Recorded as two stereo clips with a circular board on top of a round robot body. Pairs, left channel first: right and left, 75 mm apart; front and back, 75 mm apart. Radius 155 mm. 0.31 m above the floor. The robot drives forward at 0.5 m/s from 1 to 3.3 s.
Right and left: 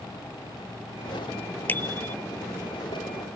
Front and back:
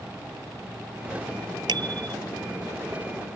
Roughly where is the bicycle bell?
Behind right.